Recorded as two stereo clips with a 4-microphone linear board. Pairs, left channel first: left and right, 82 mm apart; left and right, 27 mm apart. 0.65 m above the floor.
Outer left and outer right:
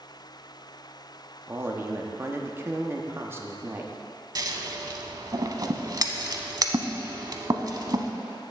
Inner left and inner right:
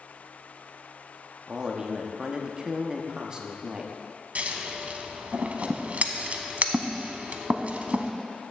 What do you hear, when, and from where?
1.5 s a man speaking: 30° right (ahead or behind), 0.8 m
4.3 s scissors: 50° right (ahead or behind), 0.7 m